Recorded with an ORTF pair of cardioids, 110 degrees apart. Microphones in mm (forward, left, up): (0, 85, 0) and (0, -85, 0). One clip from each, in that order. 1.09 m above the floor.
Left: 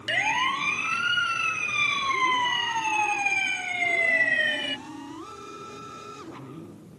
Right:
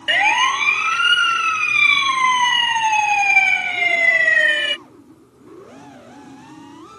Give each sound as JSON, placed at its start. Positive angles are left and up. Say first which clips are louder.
{"t": 0.1, "sound": "a siren", "louder": "right 9 dB", "azimuth_deg": -50}